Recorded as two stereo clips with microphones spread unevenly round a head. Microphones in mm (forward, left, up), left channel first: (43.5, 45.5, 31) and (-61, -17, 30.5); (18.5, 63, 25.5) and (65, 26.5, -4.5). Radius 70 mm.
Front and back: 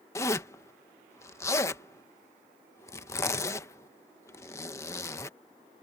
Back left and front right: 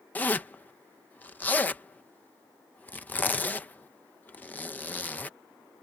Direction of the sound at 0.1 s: 95° left.